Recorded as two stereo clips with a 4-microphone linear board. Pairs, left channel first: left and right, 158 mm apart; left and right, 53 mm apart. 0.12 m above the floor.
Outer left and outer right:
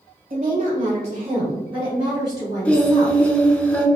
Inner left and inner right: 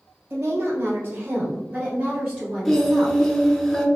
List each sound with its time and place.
0.3 s a woman speaking: 40° right (ahead or behind), 1.4 m; by 3.3 s 10° left (ahead or behind), 2 m
2.6 s singing: 10° left (ahead or behind), 0.6 m